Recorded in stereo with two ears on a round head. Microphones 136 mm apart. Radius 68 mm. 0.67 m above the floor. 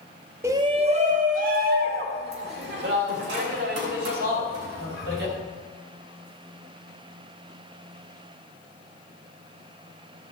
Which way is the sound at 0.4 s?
15° right (ahead or behind).